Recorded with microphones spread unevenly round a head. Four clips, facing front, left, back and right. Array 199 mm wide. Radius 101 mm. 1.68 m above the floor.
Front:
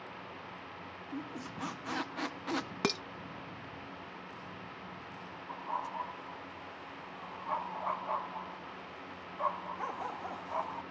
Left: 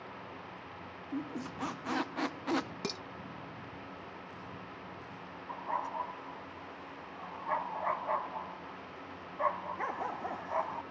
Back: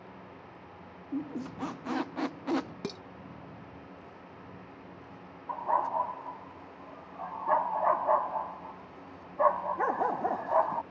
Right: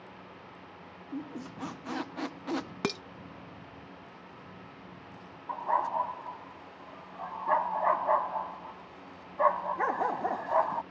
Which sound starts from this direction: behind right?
A dog barking, at 5.5 s.